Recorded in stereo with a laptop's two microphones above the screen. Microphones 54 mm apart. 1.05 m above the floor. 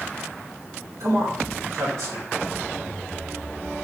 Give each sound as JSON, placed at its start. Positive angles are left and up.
{"t": 1.0, "sound": "a man speaking", "side_deg": -85, "distance_m": 4.5}